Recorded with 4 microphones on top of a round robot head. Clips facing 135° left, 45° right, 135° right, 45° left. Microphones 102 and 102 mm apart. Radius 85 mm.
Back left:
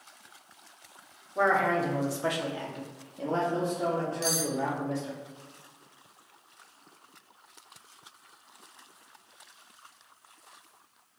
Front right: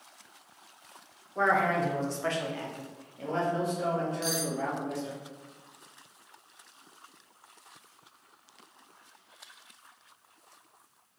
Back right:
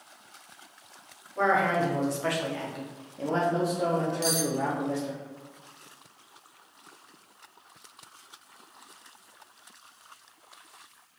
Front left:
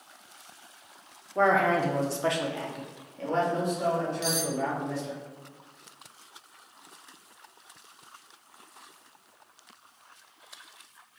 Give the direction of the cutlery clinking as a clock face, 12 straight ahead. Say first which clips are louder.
Back left 1 dB, back right 2 dB; 6 o'clock.